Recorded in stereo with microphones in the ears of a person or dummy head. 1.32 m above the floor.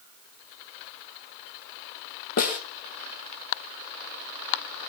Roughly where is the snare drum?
Left.